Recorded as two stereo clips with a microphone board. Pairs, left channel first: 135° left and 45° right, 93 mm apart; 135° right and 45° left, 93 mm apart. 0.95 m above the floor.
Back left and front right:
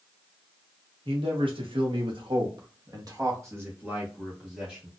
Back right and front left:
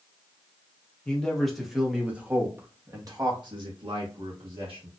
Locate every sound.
1.1 s a man speaking: 55° right, 1.5 m; by 4.9 s 40° left, 1.7 m